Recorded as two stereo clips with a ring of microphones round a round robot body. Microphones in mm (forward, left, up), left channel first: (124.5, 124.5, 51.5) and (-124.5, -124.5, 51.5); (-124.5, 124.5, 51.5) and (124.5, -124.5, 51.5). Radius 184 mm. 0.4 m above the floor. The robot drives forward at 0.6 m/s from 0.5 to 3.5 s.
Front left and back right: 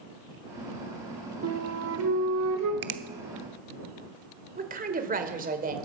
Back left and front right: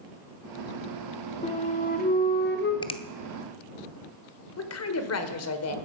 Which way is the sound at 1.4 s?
160° right.